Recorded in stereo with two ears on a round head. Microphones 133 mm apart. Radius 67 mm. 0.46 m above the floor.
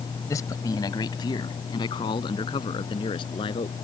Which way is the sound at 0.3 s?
20° left (ahead or behind).